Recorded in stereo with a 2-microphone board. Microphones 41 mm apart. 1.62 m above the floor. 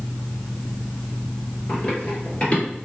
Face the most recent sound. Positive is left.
turn(degrees=35)  # may be behind; listen again after turning